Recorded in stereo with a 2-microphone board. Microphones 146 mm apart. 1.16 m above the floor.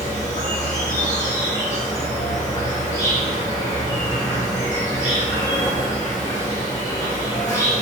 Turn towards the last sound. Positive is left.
turn(degrees=25)  # may be behind; listen again after turning